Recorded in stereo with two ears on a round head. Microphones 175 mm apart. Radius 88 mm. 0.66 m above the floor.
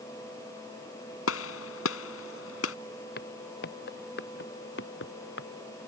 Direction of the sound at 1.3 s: 80° left.